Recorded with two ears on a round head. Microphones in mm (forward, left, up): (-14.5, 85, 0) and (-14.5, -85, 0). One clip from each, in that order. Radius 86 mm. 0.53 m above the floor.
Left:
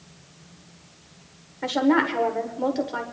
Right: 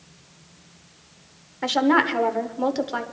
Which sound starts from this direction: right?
A woman speaking, at 1.6 s.